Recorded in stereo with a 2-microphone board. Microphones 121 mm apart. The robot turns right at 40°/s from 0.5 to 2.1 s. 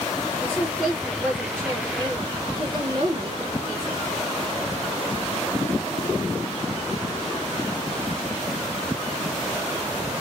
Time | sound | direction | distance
0.4 | a woman speaking | 165° left | 1.7 m